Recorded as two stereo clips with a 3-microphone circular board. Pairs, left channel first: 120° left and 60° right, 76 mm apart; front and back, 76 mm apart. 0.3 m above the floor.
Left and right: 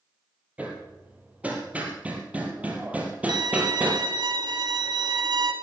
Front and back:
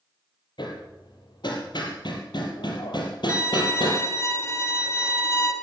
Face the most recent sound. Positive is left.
turn(degrees=-50)